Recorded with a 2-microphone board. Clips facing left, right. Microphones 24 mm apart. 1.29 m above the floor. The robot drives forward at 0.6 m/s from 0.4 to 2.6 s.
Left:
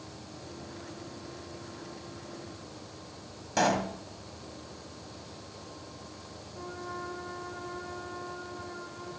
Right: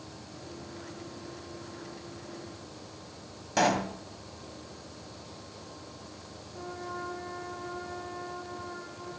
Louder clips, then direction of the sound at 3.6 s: Right 1 dB; 10° right (ahead or behind).